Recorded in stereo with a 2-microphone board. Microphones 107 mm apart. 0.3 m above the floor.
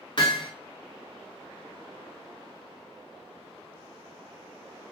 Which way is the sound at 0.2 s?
50° left (ahead or behind).